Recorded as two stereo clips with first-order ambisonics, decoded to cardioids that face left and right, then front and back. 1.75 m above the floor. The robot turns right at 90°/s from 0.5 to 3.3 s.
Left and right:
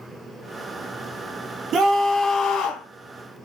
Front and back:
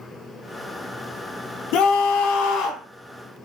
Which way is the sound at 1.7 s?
35° right.